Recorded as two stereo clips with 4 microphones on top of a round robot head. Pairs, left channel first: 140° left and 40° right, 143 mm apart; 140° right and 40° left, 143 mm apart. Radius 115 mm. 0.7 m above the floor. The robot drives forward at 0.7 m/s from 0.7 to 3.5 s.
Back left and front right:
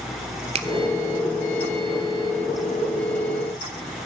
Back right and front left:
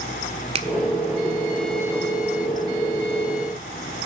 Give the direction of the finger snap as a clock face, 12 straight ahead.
12 o'clock.